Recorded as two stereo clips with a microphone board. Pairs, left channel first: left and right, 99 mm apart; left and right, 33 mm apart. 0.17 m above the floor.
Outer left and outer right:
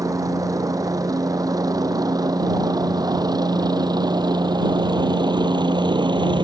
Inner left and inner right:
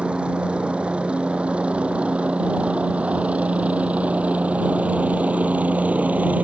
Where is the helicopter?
35° right (ahead or behind); by 6.4 s 55° right (ahead or behind).